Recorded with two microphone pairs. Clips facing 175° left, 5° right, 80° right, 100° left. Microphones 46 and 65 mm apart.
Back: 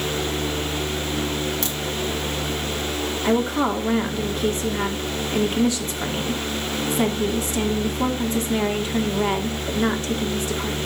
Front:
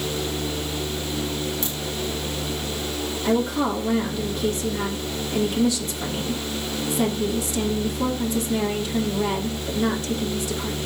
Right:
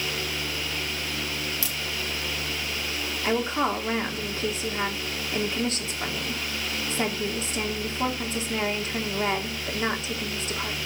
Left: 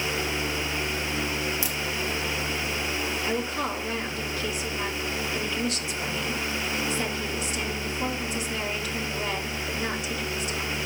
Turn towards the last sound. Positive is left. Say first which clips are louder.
# back 1 dB, right 7 dB
turn(degrees=-135)